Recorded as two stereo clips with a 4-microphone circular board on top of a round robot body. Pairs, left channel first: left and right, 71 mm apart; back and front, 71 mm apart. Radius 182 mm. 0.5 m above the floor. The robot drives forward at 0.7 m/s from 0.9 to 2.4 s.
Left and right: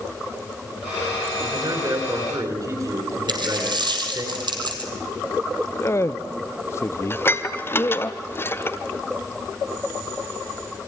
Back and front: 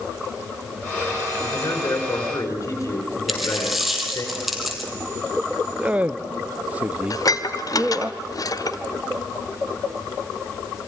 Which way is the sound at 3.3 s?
90° right.